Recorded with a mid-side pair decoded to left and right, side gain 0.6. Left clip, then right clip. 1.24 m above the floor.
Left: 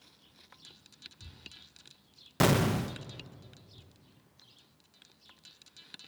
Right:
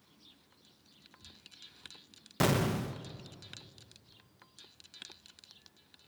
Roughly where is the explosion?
Ahead.